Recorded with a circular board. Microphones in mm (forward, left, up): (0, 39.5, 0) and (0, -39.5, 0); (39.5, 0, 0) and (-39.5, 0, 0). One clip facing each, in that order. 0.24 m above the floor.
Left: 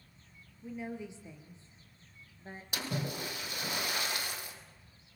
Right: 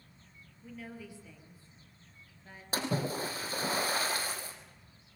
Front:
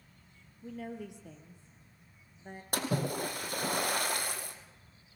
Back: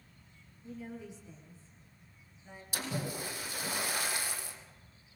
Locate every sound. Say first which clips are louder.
0.6 s a woman speaking: left 5 dB, front 3 dB; 20° left, 4 m; by 2.6 s 35° left, 3.5 m
2.7 s a splash: right 5 dB, front 5 dB; 35° right, 3 m